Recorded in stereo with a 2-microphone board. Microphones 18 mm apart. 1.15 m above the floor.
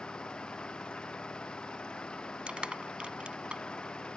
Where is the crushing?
85° right.